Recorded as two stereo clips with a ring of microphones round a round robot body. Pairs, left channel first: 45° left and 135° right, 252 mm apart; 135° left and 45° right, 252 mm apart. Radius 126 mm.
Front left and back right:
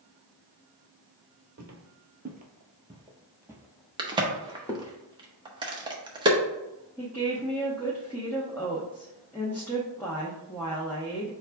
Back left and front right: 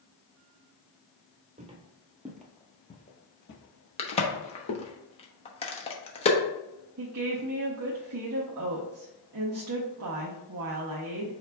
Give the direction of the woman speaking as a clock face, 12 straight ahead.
1 o'clock.